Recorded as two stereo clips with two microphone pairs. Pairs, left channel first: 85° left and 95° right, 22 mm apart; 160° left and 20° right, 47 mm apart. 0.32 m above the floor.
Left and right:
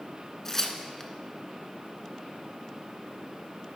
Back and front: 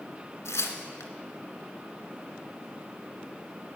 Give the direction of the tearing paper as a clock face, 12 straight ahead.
7 o'clock.